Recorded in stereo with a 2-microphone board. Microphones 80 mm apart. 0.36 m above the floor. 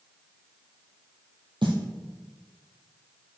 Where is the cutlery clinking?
No cutlery clinking in this recording.